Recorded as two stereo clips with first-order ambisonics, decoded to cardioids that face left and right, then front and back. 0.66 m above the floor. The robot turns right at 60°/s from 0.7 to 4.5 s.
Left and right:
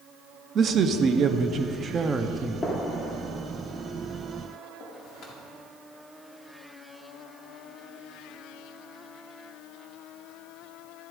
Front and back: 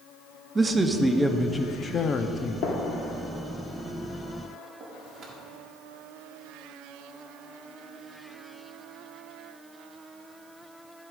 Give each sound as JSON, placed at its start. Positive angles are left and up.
{"t": 0.6, "sound": "a man speaking", "azimuth_deg": -120, "distance_m": 0.5}
{"t": 2.6, "sound": "a gunshot", "azimuth_deg": 20, "distance_m": 1.4}